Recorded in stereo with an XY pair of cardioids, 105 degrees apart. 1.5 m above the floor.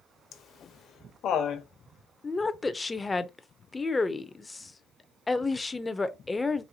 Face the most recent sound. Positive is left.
turn(degrees=20)